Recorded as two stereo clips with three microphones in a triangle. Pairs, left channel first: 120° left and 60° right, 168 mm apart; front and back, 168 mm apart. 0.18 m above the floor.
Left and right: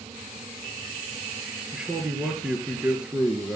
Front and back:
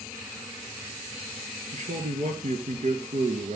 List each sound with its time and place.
1.7 s a man speaking: 145° right, 3 m